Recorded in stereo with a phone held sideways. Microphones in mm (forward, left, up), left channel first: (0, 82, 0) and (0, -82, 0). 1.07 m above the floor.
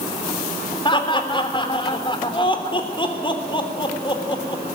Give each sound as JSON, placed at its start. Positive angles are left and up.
{"t": 0.8, "sound": "laughter", "side_deg": 30, "distance_m": 3.0}